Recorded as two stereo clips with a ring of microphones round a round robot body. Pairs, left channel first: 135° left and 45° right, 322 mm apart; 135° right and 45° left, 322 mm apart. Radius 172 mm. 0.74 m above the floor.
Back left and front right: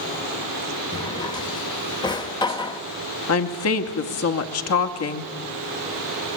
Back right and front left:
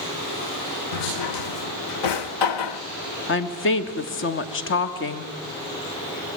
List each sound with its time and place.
0.9 s a drawer: 150° right, 1.0 m
3.3 s a woman speaking: 175° left, 1.4 m